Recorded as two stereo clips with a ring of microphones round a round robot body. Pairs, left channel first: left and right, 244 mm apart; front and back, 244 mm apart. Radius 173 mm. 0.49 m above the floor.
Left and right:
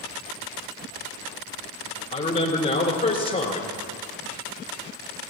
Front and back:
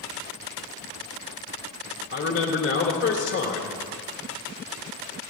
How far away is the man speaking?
About 2.5 m.